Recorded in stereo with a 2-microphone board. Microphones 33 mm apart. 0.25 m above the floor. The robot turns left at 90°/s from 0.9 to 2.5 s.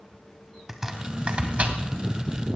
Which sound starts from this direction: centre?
Chopping, at 0.7 s.